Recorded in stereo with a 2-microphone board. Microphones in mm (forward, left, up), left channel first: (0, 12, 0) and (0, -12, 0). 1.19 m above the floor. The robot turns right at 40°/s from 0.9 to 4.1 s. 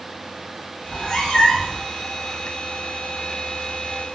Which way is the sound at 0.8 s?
70° left.